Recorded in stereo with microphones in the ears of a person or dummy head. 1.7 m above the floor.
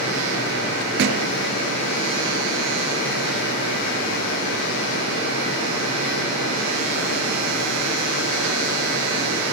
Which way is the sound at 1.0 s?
65° right (ahead or behind).